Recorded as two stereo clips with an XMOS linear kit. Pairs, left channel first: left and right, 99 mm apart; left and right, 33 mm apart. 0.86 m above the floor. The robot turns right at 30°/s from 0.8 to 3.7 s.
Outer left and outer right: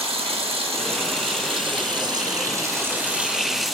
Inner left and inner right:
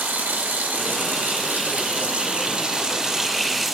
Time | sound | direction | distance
0.0 | running water | 85° right | 1.2 m